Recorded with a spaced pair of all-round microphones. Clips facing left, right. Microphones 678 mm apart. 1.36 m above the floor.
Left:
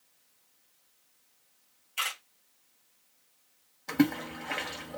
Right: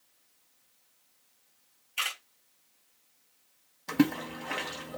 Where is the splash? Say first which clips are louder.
Even; 15° right (ahead or behind), 0.8 m.